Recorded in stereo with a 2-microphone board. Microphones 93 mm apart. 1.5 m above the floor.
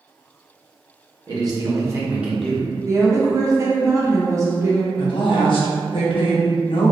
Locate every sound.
1.3 s a man speaking: 50° right (ahead or behind), 0.9 m; by 2.7 s 25° left (ahead or behind), 0.5 m
2.8 s a woman speaking: 35° right (ahead or behind), 0.5 m
5.0 s a woman speaking: 65° left (ahead or behind), 0.7 m